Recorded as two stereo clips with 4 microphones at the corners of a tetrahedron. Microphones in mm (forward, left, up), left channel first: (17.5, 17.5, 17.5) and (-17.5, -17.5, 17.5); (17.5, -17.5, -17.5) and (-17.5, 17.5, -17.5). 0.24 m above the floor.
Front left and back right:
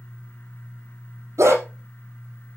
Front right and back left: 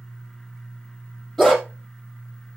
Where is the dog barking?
130° right, 3.5 m.